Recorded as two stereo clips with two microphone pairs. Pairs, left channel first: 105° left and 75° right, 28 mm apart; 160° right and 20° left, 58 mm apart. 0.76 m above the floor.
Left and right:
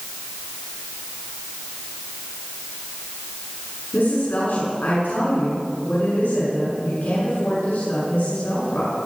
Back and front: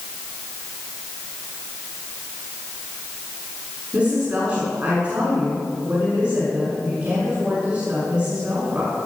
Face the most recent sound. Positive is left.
turn(degrees=85)